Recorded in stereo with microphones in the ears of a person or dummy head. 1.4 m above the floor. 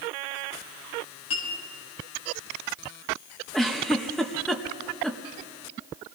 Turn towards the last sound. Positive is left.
turn(degrees=0)  # may be behind; listen again after turning